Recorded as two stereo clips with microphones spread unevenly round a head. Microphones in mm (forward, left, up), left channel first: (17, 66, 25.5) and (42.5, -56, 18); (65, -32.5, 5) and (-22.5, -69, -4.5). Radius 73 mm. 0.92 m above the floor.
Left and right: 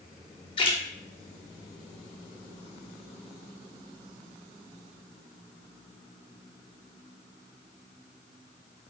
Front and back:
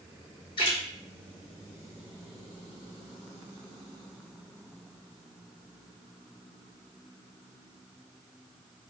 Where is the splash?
60° left, 0.8 m.